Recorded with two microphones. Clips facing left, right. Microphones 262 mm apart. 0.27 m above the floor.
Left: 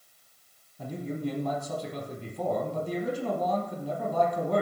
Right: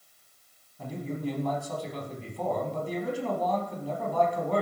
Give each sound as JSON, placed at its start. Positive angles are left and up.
{"t": 0.8, "sound": "a man speaking", "side_deg": 10, "distance_m": 2.5}